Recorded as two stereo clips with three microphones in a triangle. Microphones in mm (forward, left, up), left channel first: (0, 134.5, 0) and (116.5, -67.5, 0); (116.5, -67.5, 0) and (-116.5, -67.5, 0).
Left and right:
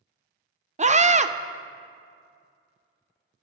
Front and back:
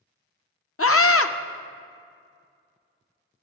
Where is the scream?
Straight ahead, 0.6 m.